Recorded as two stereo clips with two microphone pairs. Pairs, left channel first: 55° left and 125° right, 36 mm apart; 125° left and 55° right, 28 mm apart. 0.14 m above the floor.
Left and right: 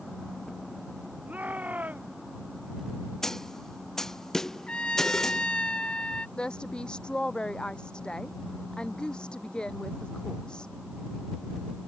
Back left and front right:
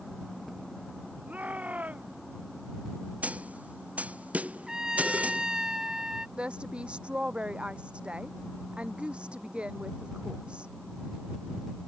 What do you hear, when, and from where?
1.3 s a shout: 85° right
3.2 s a snare drum: 20° right
4.7 s a trumpet: 5° left
6.4 s a woman speaking: 5° right